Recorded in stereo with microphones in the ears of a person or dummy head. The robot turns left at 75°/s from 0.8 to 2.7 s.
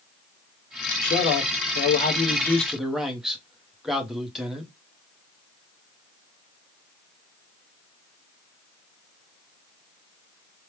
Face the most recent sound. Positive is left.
turn(degrees=0)